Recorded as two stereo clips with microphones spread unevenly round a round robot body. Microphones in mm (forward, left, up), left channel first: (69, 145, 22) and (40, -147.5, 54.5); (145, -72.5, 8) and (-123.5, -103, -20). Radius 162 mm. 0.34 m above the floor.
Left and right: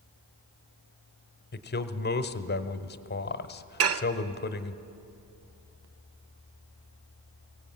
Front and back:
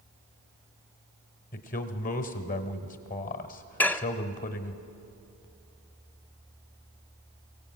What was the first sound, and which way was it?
A man speaking, 65° left.